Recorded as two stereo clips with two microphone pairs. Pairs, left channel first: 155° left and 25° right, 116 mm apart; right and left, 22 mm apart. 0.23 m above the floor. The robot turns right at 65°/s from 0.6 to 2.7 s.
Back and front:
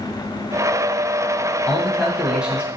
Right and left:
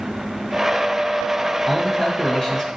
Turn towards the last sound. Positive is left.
turn(degrees=-80)